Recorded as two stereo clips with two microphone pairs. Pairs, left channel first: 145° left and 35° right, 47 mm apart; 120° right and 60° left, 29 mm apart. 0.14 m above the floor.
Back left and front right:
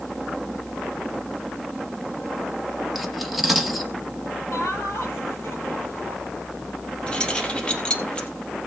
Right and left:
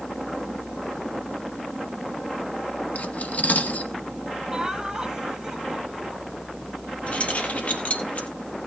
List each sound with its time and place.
3.0 s cutlery clinking: 125° right, 1.5 m
4.5 s laughter: 135° left, 5 m
7.1 s keys jangling: 150° right, 3 m